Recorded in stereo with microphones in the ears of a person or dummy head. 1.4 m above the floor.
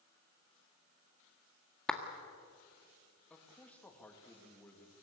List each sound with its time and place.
1.9 s a clap: 5° left (ahead or behind), 1.6 m
3.3 s a man speaking: 5° left (ahead or behind), 2.5 m